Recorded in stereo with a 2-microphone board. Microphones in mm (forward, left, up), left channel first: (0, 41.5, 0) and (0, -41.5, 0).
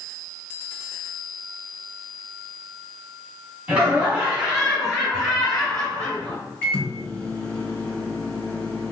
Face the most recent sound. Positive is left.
turn(degrees=20)  # may be behind; listen again after turning